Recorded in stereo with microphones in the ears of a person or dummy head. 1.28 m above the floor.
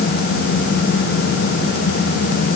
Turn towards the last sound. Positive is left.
No sound to turn to.